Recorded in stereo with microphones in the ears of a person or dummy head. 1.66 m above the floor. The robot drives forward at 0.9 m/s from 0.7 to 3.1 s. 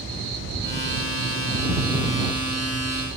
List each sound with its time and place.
0.0 s an insect: 70° right (ahead or behind), 7.5 m; by 3.2 s 55° right (ahead or behind), 8.5 m